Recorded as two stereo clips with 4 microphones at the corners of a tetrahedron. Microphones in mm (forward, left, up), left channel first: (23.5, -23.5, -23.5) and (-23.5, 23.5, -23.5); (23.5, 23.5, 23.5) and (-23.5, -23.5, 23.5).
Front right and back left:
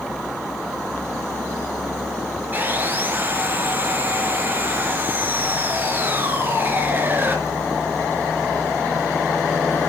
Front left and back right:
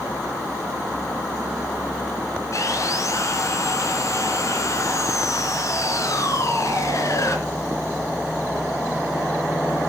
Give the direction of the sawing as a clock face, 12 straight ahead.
9 o'clock.